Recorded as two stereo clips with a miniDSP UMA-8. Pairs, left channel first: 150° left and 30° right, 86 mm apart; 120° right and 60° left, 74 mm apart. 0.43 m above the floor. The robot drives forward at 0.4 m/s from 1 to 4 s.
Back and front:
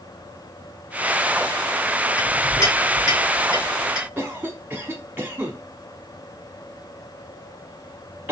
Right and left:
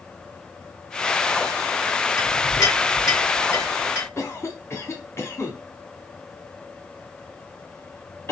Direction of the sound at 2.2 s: 155° right.